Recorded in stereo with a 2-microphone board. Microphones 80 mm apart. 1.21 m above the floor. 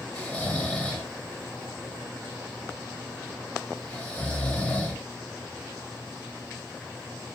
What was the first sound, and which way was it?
Snoring, 20° left (ahead or behind).